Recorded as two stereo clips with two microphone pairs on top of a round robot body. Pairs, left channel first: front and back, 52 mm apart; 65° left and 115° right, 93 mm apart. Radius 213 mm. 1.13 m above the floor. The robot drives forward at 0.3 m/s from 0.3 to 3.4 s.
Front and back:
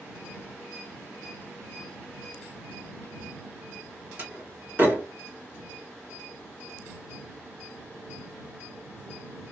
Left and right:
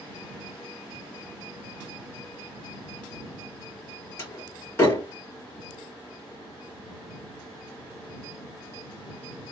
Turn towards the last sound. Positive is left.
turn(degrees=130)